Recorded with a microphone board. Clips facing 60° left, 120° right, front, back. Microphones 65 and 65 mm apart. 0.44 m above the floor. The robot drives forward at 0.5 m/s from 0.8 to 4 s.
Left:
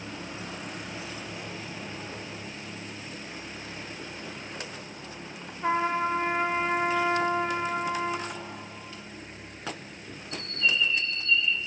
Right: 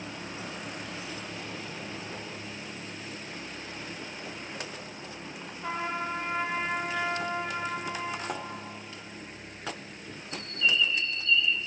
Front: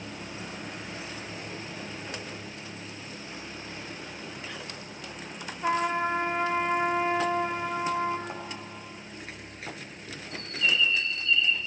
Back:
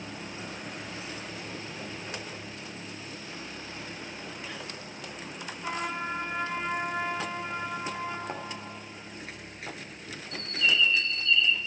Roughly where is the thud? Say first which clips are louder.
Right 3 dB, back 1 dB; behind right.